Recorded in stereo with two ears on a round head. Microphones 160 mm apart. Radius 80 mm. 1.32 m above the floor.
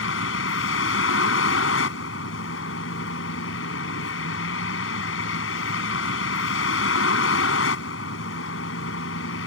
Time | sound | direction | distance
0.0 | a vehicle | 85° left | ?